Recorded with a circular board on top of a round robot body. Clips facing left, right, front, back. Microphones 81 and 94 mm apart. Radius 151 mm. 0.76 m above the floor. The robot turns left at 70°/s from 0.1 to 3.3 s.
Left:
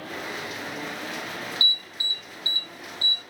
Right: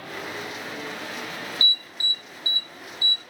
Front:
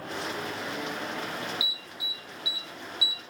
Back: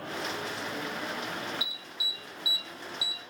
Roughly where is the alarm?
Right.